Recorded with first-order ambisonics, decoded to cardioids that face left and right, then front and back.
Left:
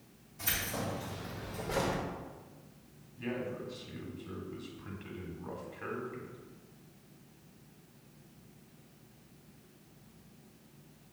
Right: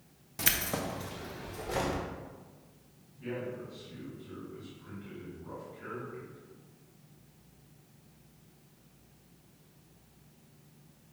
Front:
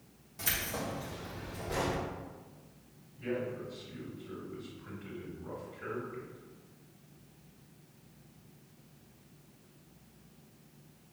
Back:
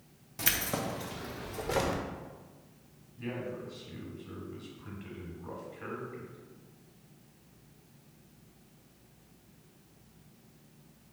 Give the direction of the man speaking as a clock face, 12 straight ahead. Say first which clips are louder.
Even, front 2 dB; 8 o'clock.